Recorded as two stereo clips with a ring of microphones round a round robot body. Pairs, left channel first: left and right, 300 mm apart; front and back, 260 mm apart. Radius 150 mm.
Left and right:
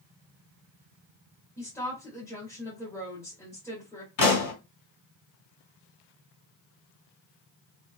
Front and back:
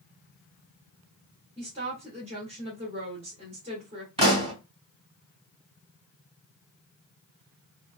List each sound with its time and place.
1.6 s a woman speaking: 160° left, 1.5 m
4.2 s a pop: 115° left, 2.5 m